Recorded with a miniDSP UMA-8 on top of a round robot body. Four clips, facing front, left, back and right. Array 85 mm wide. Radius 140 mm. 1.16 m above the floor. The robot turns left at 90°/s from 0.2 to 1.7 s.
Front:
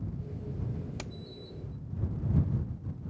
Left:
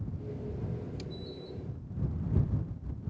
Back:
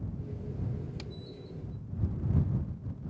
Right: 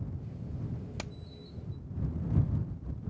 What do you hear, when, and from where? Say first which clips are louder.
1.0 s hammering: left 1 dB, front 1 dB; 60° right; by 1.1 s 75° right